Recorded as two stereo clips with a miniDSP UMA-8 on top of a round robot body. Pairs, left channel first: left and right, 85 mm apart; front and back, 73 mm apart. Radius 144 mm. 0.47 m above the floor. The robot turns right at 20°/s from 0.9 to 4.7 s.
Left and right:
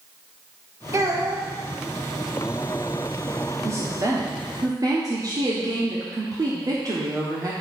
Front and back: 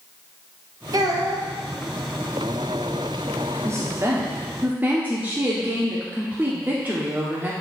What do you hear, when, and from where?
0.9 s a child speaking: 145° right, 1.6 m; by 1.5 s 135° right, 1.6 m
3.6 s a woman speaking: 140° right, 1.5 m; by 7.5 s 120° right, 1.5 m